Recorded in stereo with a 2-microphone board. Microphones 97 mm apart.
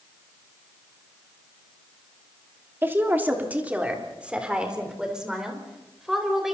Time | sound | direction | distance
2.8 | a woman speaking | 25° right (ahead or behind) | 2.5 m